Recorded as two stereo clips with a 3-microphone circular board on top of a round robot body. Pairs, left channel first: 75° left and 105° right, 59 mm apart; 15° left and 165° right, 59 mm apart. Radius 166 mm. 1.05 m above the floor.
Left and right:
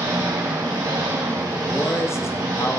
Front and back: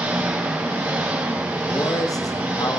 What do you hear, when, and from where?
0.0 s an engine running: 120° right, 3.5 m
1.7 s a man speaking: 30° left, 1.6 m